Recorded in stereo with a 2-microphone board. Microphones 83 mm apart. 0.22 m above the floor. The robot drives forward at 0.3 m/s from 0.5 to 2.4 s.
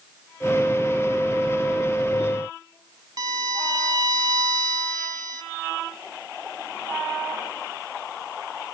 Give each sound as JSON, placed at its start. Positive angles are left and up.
{"t": 3.2, "sound": "a violin", "side_deg": -50, "distance_m": 0.6}